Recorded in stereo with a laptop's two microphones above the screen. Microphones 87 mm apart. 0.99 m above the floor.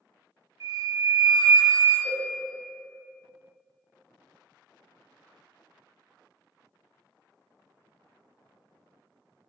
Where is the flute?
40° right (ahead or behind), 0.6 m.